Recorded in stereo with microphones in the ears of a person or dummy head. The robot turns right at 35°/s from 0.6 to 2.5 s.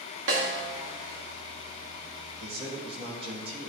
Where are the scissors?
No scissors in this recording.